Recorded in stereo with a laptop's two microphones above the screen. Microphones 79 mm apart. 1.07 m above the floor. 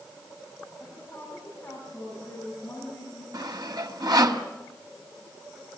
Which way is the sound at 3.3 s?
65° right (ahead or behind).